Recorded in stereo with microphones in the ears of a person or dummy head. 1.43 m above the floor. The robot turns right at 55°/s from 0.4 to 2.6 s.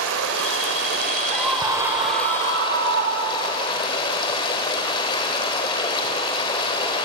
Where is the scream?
170° left, 4 m; by 3.6 s 120° right, 4 m.